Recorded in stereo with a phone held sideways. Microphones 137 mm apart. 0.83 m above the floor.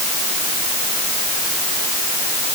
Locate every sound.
Only background noise.